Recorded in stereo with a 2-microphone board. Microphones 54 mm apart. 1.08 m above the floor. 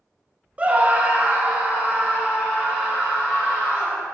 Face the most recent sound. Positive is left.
turn(degrees=-25)  # may be behind; listen again after turning